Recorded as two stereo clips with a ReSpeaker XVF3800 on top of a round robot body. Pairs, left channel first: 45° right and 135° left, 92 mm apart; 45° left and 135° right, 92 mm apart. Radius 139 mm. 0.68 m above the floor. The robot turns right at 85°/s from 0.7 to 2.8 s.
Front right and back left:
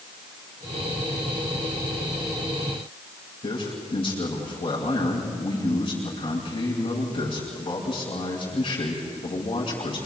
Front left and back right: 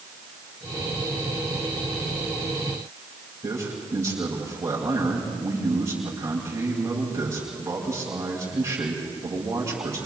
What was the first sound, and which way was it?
A man speaking, 75° right.